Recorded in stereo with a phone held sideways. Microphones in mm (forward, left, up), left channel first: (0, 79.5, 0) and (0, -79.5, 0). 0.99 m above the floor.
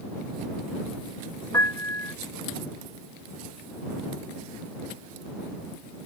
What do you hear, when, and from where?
1.5 s a piano: 20° left (ahead or behind)